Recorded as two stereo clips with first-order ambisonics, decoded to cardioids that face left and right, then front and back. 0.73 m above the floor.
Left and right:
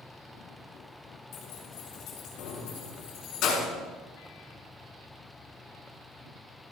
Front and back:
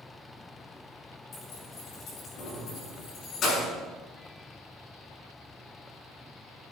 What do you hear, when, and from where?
1.3 s keys jangling: 55° left, 6.5 m